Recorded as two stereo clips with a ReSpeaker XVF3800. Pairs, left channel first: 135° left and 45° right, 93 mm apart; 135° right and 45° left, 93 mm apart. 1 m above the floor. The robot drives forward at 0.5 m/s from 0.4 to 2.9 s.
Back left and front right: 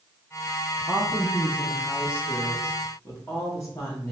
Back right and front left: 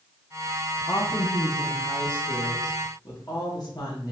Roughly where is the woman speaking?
Behind right.